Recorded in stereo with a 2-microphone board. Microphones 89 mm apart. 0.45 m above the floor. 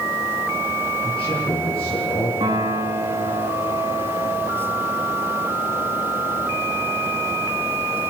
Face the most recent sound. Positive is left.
turn(degrees=-65)  # may be behind; listen again after turning